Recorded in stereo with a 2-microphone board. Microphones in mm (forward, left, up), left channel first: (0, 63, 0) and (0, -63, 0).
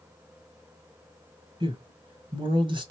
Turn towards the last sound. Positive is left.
turn(degrees=-40)  # may be behind; listen again after turning